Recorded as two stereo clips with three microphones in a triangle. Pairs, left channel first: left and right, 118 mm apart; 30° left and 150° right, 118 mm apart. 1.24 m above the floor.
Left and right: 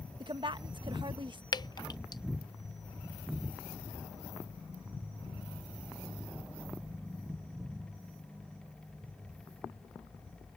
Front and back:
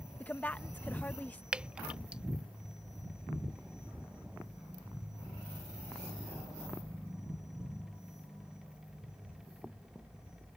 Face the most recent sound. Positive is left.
turn(degrees=135)